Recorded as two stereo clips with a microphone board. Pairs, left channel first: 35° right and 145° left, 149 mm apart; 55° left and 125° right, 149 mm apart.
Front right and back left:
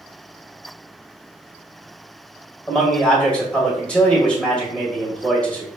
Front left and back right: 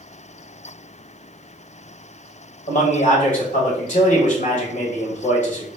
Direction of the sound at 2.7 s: 45° left.